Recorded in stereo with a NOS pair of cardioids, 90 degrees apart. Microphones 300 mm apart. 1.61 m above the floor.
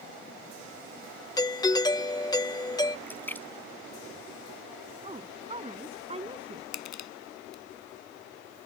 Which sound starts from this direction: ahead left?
Crushing, at 6.7 s.